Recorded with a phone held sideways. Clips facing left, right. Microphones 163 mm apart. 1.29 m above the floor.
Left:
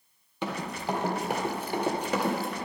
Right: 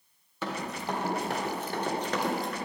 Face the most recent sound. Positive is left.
turn(degrees=5)  # may be behind; listen again after turning